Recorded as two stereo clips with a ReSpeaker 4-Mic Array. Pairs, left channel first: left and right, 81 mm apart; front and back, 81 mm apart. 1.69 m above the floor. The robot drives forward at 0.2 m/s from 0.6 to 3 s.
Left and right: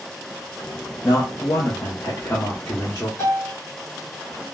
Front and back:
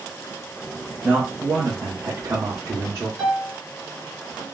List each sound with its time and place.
1.0 s a man speaking: 120° left, 0.7 m; by 3.1 s 145° left, 0.9 m
3.2 s a piano: 145° left, 1.2 m